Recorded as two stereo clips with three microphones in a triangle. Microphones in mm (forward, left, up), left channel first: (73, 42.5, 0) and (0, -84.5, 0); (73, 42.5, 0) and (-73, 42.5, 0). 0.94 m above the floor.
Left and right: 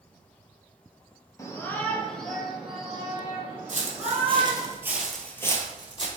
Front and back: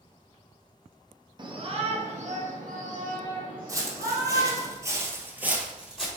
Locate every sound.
1.4 s a shout: 125° left, 0.8 m; by 4.7 s 170° left, 2 m
3.7 s footsteps: 120° right, 1.5 m; by 6.1 s 95° left, 1.3 m